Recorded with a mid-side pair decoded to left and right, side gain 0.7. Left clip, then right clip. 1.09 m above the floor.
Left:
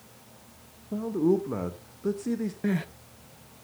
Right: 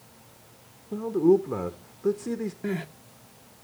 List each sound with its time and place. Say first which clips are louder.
0.9 s a man speaking: right 4 dB; 5° right, 0.8 m
2.6 s crying: left 2 dB; 10° left, 0.8 m